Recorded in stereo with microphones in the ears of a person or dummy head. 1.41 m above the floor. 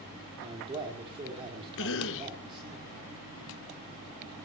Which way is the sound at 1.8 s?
70° left (ahead or behind).